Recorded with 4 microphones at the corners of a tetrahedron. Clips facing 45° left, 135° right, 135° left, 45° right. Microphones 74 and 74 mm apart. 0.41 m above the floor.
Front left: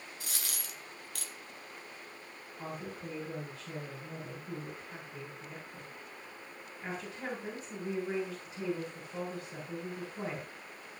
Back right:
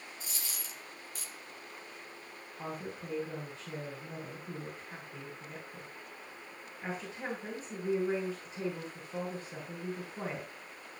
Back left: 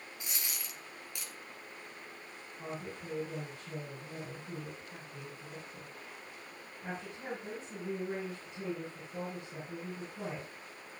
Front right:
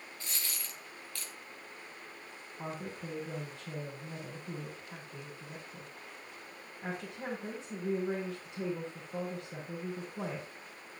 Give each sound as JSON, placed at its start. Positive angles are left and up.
{"t": 0.2, "sound": "a dropped coin", "azimuth_deg": 65, "distance_m": 1.7}
{"t": 2.6, "sound": "a woman speaking", "azimuth_deg": -75, "distance_m": 7.0}